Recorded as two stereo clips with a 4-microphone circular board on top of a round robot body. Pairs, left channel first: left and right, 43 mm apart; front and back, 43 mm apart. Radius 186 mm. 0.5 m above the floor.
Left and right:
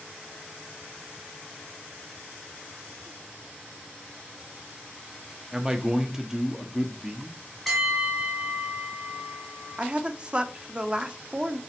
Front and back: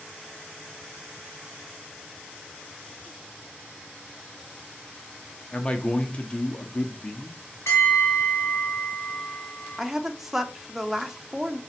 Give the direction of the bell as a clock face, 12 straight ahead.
12 o'clock.